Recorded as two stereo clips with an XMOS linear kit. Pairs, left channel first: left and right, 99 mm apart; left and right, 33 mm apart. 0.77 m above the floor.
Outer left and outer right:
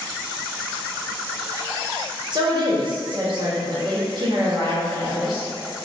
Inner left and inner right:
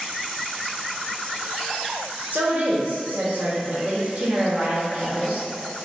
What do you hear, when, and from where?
2.3 s a woman speaking: 50° right (ahead or behind), 0.9 m